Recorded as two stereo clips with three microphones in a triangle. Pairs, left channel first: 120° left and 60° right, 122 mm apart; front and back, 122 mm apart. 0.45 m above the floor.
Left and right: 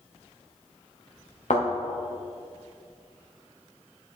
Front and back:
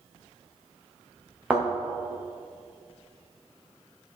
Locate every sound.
1.5 s a thud: 100° left, 3 m